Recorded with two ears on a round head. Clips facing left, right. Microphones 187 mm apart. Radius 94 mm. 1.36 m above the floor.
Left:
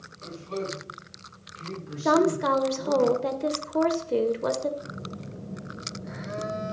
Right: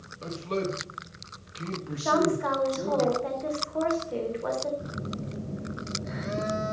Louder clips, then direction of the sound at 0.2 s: Right 3 dB; 65° right (ahead or behind).